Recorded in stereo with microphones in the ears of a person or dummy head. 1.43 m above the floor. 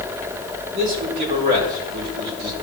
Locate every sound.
0.7 s a man speaking: 55° right (ahead or behind), 5.5 m